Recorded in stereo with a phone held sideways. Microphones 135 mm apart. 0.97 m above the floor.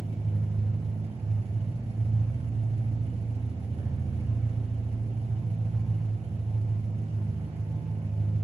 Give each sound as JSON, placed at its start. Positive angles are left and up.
{"t": 0.0, "sound": "an engine running", "side_deg": -50, "distance_m": 0.8}